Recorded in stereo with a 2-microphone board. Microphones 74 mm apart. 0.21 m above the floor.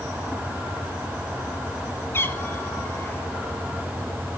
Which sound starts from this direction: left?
A cat meowing, at 2.1 s.